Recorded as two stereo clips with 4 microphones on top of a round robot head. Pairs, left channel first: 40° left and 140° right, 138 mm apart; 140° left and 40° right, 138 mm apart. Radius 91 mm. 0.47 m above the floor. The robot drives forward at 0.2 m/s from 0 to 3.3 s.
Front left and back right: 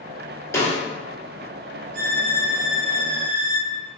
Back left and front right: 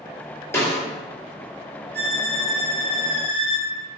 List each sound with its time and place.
0.5 s a snare drum: 90° left, 0.9 m; by 0.8 s 95° left, 0.9 m
1.9 s a violin: 145° right, 0.7 m; by 3.7 s 155° right, 0.9 m